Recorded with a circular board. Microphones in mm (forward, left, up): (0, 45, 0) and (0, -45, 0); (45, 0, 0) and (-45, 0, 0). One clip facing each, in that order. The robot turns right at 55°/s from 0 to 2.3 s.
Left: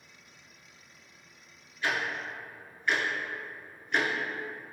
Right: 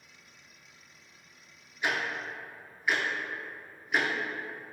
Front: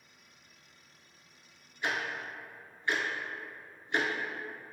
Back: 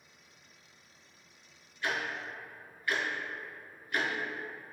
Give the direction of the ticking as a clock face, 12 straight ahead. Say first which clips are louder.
Even, even; 1 o'clock.